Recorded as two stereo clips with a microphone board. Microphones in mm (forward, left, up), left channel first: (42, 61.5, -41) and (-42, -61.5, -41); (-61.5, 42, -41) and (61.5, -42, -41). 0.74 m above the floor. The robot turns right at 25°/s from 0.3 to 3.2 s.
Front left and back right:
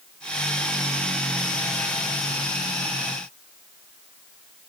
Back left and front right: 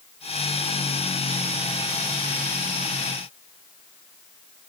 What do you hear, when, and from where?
Only background noise.